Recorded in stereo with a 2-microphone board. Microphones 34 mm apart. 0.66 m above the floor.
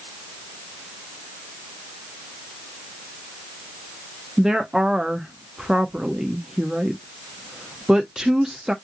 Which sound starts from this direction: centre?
A woman speaking, at 4.4 s.